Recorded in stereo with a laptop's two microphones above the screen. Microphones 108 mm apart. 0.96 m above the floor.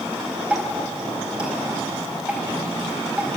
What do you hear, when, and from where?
0.5 s dripping: 10° right (ahead or behind), 4.5 m